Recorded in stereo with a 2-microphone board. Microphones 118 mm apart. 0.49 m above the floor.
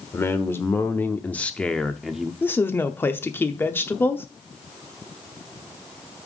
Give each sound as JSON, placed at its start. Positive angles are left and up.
{"t": 0.1, "sound": "a man speaking", "side_deg": 20, "distance_m": 1.2}
{"t": 2.4, "sound": "a woman speaking", "side_deg": 20, "distance_m": 0.7}